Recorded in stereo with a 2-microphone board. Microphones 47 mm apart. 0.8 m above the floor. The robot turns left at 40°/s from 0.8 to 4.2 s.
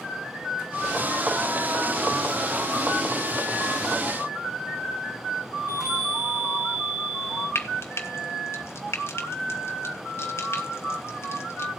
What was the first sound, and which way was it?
A chime, 55° right (ahead or behind).